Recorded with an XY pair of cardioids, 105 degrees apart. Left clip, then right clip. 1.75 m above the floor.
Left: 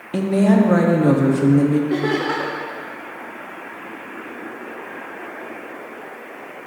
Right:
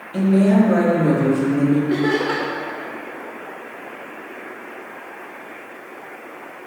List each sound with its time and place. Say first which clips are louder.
0.1 s a woman speaking: even; 70° left, 1.0 m
1.9 s laughter: right 1 dB; 15° left, 1.0 m